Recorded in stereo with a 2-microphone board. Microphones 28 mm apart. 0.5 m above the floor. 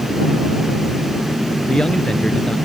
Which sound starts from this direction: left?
A man speaking, at 1.7 s.